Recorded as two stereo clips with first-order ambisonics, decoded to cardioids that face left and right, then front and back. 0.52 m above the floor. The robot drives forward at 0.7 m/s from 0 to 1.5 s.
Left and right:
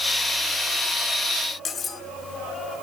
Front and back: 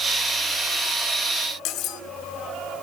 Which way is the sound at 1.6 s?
25° left.